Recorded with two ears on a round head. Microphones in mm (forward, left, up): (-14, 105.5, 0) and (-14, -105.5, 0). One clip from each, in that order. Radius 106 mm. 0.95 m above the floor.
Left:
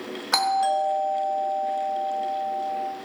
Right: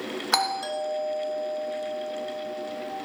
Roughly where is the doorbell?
Centre.